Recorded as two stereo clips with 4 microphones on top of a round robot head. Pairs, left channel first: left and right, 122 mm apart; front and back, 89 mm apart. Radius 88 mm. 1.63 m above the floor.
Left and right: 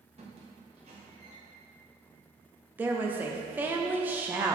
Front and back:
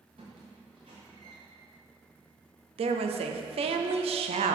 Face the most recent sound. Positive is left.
turn(degrees=-170)